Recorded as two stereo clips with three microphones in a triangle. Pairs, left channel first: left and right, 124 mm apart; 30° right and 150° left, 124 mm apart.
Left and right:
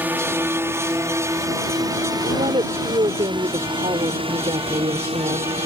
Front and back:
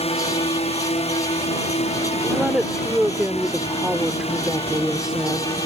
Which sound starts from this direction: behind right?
A woman speaking, at 2.2 s.